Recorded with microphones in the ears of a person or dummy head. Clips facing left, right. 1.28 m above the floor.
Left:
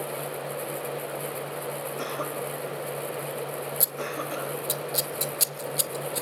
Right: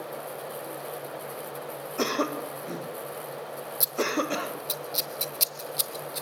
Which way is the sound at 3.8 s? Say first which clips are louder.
Right 4 dB; 5° left (ahead or behind).